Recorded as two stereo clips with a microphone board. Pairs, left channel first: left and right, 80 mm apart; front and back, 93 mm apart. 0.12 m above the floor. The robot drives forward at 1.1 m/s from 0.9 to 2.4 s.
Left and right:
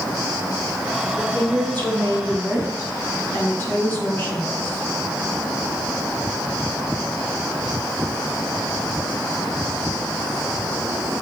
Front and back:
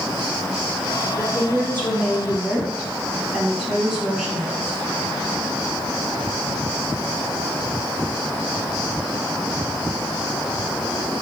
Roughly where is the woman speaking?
Ahead left.